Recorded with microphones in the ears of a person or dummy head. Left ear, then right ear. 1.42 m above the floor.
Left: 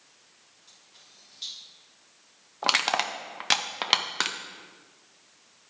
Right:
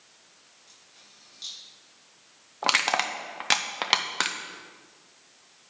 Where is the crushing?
5° left (ahead or behind), 0.5 m.